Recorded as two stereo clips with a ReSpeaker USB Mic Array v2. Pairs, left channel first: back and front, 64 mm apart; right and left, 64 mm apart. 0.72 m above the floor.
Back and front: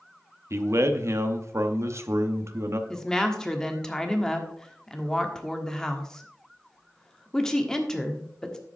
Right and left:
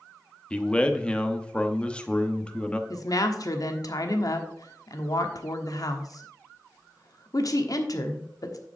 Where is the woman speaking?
100° right, 1.3 m.